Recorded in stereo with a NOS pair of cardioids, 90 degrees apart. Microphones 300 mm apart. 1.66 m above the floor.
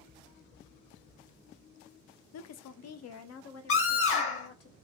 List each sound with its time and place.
2.3 s a woman speaking: 60° left, 0.5 m; by 4.7 s 50° left, 1.7 m
3.7 s a scream: 45° left, 1.8 m